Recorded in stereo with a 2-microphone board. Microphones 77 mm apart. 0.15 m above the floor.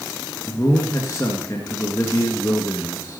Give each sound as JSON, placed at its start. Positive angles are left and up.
{"t": 0.5, "sound": "a man speaking", "side_deg": 45, "distance_m": 2.5}